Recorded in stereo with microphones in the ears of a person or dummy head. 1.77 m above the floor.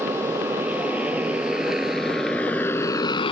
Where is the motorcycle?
10° right (ahead or behind); by 3.3 s 30° left (ahead or behind).